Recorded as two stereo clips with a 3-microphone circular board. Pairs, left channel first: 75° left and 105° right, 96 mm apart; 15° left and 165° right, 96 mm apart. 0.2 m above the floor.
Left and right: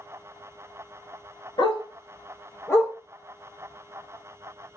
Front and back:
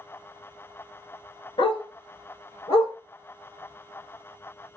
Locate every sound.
1.6 s a dog barking: 45° left, 0.9 m; by 2.9 s 5° left, 1.3 m